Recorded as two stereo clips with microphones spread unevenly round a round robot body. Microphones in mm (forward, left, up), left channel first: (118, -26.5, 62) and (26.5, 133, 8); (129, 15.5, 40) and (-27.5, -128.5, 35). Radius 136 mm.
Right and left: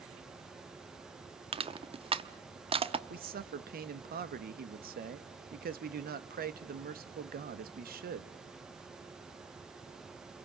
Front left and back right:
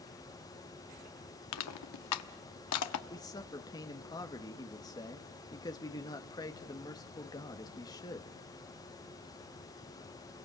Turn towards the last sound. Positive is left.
turn(degrees=115)